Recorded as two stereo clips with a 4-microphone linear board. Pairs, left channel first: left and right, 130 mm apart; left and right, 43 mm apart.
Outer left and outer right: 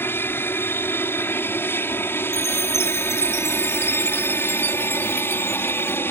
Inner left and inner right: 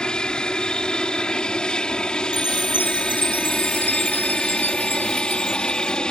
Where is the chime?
60° left (ahead or behind).